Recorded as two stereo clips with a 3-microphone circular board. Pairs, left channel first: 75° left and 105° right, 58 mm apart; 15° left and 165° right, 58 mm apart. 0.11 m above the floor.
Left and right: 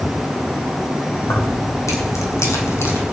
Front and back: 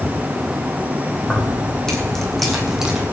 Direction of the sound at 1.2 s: 85° left.